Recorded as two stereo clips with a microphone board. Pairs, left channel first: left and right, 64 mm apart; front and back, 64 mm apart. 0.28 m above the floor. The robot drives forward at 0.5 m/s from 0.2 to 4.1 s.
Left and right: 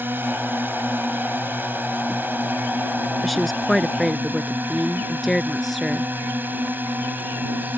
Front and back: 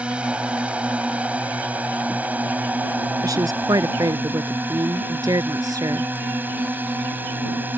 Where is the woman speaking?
Straight behind.